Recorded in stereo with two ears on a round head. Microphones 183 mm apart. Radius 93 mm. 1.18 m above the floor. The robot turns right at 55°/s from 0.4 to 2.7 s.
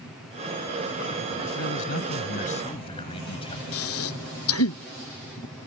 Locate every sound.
1.6 s a man speaking: 90° left; by 3.6 s 150° left
3.7 s breathing: 80° left